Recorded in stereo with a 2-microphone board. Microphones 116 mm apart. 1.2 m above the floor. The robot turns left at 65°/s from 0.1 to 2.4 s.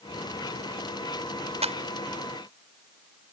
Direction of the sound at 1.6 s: 60° right (ahead or behind).